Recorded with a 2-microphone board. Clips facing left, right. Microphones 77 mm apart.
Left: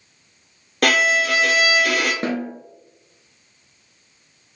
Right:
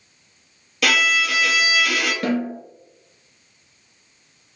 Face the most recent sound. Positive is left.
turn(degrees=25)  # may be behind; listen again after turning